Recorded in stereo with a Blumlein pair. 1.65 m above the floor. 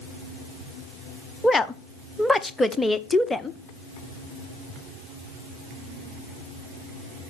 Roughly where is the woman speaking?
Ahead.